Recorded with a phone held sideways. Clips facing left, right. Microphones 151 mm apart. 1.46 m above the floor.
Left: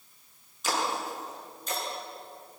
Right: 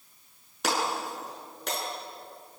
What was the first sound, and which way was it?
Breaking glass, 75° right (ahead or behind).